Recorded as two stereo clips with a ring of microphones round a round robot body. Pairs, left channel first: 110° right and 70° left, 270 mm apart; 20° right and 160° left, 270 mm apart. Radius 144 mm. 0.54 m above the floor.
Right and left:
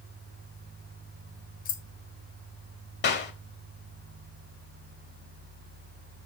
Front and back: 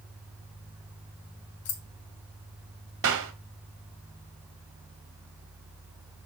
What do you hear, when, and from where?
1.6 s keys jangling: 55° right, 1.4 m
3.0 s a clap: 160° right, 1.8 m